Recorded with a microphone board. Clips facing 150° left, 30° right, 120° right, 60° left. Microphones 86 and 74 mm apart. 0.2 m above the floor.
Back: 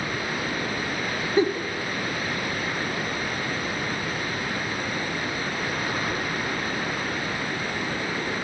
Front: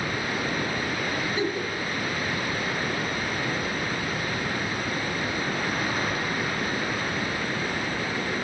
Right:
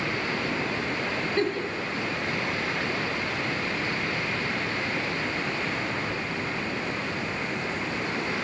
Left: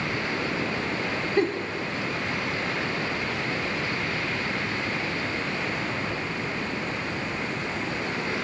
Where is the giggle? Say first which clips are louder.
Back 9 dB, left 3 dB; 125° left, 0.8 m.